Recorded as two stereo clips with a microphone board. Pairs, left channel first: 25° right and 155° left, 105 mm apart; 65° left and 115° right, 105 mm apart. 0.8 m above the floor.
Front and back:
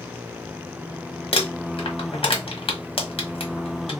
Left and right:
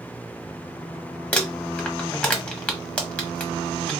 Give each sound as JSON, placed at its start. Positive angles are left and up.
{"t": 1.3, "sound": "crumpling", "azimuth_deg": -10, "distance_m": 1.1}